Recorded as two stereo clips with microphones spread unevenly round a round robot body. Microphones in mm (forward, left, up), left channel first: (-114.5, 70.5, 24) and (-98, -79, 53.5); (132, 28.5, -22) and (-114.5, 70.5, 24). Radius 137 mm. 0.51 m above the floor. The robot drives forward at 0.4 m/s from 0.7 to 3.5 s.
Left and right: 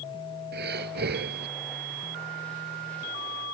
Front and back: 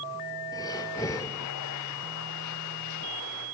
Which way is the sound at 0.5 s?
90° right.